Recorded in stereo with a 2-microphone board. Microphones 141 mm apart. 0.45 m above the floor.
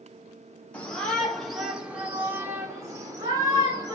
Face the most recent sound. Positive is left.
turn(degrees=-30)  # may be behind; listen again after turning